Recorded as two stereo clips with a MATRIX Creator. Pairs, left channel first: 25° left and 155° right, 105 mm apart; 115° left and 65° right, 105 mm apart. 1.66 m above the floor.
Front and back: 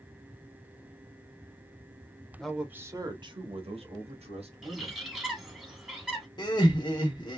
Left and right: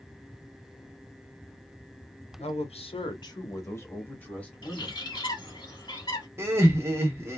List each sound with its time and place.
2.4 s a man speaking: 110° left, 0.8 m; by 5.0 s 165° right, 2.5 m
4.6 s a bird: 120° left, 1.4 m
6.4 s laughter: 10° right, 0.9 m